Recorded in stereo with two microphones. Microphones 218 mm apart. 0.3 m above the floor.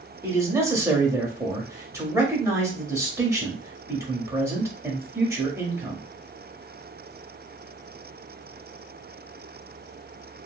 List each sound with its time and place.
0.2 s a man speaking: 15° right (ahead or behind), 1.0 m